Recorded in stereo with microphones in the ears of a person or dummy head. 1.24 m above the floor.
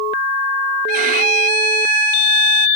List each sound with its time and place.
0.9 s a violin: 35° right (ahead or behind)